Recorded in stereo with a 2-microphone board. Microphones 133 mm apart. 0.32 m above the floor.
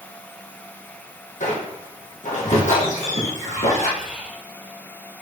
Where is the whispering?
10° left (ahead or behind), 2.0 m.